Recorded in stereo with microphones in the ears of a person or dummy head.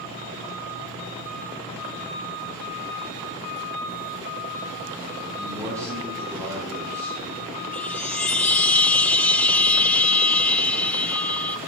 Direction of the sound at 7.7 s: 10° left (ahead or behind).